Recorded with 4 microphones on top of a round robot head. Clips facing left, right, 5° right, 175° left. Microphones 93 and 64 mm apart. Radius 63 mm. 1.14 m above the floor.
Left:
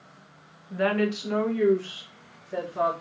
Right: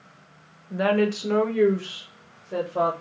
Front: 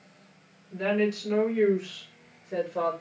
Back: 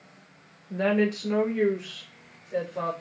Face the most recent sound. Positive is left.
turn(degrees=-55)